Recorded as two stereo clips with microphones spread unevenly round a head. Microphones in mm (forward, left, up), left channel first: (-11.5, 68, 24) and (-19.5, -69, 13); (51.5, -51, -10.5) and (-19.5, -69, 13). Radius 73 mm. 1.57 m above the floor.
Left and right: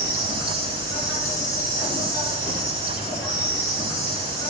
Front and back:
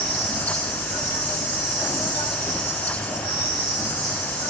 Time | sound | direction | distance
0.0 | an insect | 170° right | 2 m